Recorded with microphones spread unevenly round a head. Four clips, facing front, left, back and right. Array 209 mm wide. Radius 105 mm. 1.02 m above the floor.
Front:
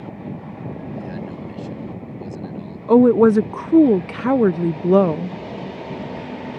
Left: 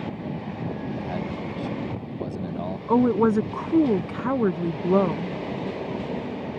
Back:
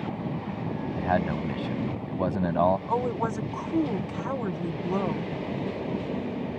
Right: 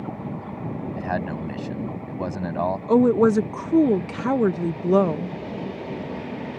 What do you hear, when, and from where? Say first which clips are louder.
1.0 s a man speaking: right 3 dB, back 4 dB; 150° right
2.9 s a woman speaking: right 2 dB, front 15 dB; 10° right